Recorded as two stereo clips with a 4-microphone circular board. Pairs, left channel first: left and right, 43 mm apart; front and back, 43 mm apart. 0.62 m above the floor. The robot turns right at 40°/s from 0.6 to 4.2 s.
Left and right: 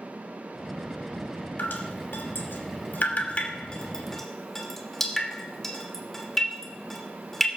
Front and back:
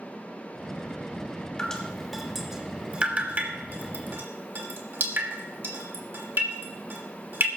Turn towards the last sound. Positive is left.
turn(degrees=170)